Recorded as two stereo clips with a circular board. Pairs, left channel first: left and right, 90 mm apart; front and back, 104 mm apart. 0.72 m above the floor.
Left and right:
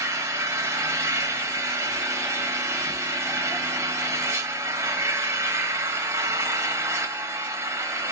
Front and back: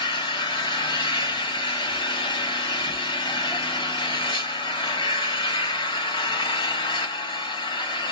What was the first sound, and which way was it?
An engine running, 35° right.